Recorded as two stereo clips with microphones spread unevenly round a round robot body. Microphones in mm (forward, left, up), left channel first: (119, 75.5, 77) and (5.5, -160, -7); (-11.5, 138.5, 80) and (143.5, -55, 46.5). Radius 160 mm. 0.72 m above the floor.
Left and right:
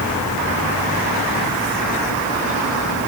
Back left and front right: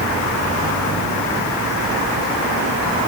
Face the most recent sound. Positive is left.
No sound to turn to.